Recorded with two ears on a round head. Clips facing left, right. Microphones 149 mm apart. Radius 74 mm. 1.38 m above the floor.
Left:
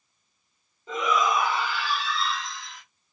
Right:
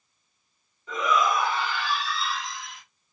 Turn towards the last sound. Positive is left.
turn(degrees=-20)  # may be behind; listen again after turning